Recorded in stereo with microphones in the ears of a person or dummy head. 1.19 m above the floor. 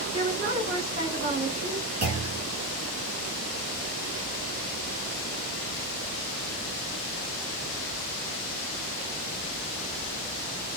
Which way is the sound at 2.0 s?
40° right (ahead or behind).